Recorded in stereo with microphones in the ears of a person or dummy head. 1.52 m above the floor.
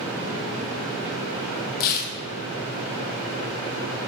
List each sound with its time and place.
1.8 s tearing paper: 50° left (ahead or behind), 1.1 m